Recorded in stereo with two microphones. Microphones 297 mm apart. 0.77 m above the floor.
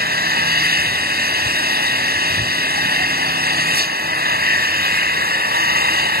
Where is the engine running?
30° right (ahead or behind).